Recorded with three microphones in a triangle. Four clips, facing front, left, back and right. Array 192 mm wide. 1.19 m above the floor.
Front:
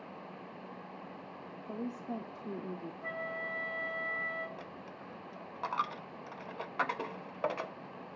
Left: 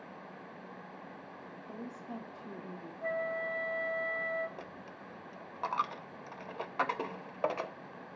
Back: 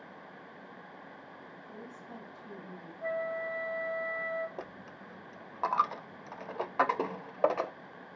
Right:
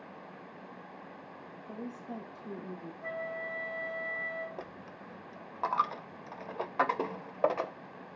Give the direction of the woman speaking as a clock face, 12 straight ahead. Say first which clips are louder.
Right 3 dB, front 9 dB; 12 o'clock.